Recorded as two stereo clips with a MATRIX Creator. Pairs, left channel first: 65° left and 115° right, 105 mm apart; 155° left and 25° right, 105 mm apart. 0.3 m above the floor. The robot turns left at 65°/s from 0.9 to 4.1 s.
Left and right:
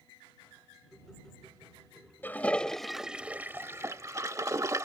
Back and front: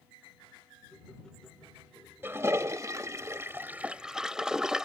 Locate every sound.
2.2 s a toilet flushing: 20° left; by 4.9 s 100° right